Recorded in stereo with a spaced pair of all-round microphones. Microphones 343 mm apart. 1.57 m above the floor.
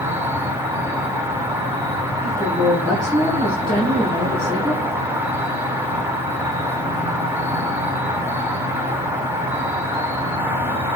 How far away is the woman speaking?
About 4 m.